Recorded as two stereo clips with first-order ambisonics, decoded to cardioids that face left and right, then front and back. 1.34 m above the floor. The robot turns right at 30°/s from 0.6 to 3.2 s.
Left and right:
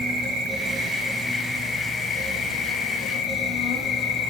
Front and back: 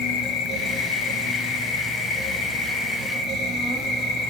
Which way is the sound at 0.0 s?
20° right.